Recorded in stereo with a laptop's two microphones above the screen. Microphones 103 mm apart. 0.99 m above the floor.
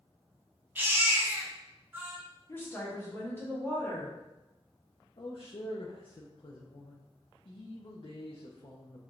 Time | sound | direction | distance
0.8 | a baby crying | 20° right (ahead or behind) | 0.9 m
2.5 | a woman speaking | 20° left (ahead or behind) | 1.4 m
5.2 | a man speaking | 55° left (ahead or behind) | 0.7 m